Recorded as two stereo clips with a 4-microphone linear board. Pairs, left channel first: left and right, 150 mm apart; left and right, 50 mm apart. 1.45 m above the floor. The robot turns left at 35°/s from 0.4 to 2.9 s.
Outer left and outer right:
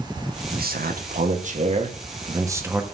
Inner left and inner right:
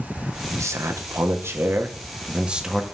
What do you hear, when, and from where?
0.5 s a man speaking: 90° right, 1.2 m; by 2.8 s 170° right, 1.2 m